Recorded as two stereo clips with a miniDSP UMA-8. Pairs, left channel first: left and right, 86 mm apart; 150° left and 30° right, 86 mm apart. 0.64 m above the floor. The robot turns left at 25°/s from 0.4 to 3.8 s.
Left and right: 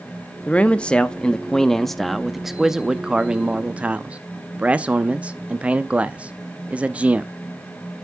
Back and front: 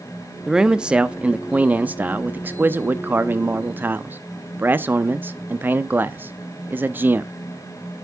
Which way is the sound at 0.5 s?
40° left.